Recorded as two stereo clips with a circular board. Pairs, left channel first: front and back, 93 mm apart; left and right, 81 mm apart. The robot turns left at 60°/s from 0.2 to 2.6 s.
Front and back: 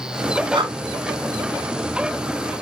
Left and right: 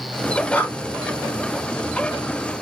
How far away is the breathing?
About 0.7 m.